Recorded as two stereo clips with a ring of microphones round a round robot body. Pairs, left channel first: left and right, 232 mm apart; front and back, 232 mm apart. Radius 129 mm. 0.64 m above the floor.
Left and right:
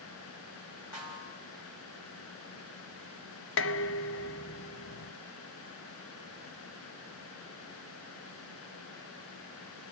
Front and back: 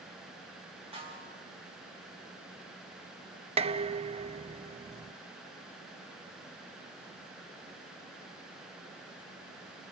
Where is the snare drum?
115° left, 6.5 m.